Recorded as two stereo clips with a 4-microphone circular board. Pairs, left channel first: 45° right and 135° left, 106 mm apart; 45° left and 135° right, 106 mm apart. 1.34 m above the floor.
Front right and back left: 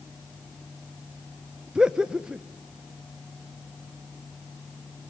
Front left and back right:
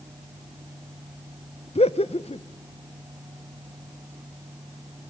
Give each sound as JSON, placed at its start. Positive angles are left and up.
{"t": 1.8, "sound": "laughter", "azimuth_deg": 55, "distance_m": 0.7}